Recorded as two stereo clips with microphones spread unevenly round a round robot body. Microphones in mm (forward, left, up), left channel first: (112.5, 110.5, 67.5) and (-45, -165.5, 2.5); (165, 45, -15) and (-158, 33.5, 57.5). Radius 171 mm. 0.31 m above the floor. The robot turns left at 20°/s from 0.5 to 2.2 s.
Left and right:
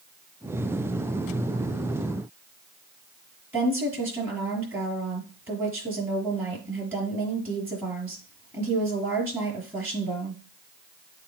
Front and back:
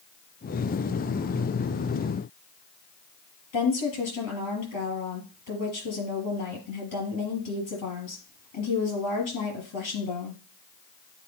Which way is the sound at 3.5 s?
40° right.